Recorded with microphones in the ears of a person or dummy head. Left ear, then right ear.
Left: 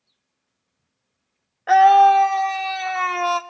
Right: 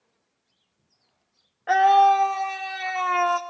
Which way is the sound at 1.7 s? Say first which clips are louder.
Left 5 dB; 10° left (ahead or behind).